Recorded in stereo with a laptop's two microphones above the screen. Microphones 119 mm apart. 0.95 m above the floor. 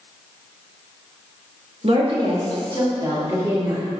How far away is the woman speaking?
About 1.5 m.